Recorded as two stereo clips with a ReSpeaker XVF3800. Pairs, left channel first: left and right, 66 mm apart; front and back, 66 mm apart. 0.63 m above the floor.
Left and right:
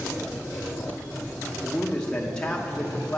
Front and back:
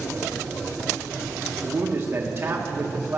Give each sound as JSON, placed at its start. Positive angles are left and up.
{"t": 1.6, "sound": "a man speaking", "azimuth_deg": 155, "distance_m": 0.8}